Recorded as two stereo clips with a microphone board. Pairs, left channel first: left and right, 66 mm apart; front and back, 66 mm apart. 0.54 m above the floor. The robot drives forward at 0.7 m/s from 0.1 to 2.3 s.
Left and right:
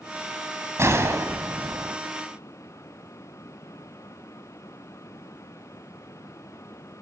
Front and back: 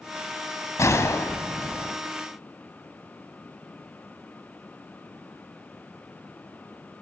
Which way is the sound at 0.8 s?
40° right.